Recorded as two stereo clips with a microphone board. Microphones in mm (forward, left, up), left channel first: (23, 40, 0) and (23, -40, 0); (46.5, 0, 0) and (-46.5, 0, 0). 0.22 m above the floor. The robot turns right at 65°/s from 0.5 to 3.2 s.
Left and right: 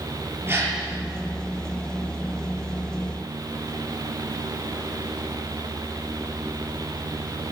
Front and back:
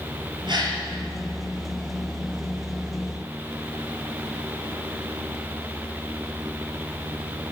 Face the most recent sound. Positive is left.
turn(degrees=30)